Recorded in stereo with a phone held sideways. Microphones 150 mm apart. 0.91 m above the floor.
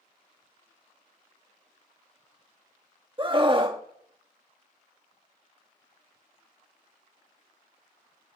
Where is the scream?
35° right (ahead or behind), 1.4 m.